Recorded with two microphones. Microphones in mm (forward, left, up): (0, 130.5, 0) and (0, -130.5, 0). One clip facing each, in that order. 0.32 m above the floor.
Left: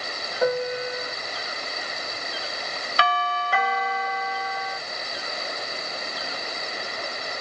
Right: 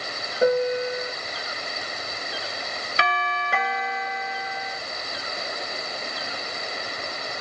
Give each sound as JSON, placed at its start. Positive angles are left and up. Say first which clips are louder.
{"t": 0.4, "sound": "a piano", "louder": "right 4 dB", "side_deg": -20, "distance_m": 0.7}
{"t": 3.0, "sound": "a doorbell", "louder": "left 2 dB", "side_deg": -25, "distance_m": 1.9}